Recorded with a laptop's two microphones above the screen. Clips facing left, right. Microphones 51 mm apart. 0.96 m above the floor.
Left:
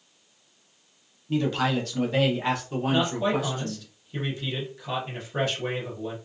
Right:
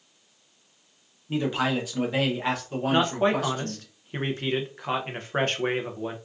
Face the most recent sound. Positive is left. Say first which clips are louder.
# right 2 dB
turn(degrees=-45)  # may be behind; listen again after turning